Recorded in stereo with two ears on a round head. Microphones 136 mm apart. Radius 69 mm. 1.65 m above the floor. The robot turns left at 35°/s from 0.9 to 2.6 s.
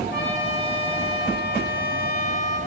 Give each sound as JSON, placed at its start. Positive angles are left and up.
{"t": 0.1, "sound": "a trumpet", "azimuth_deg": 95, "distance_m": 6.5}